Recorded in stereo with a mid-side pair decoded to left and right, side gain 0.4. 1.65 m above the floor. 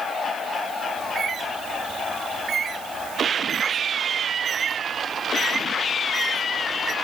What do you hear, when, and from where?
1.0 s a bird: 50° right